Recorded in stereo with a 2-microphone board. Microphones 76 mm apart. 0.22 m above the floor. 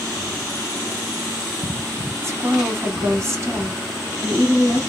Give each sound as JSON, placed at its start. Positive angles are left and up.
{"t": 2.2, "sound": "a woman speaking", "side_deg": -40, "distance_m": 1.2}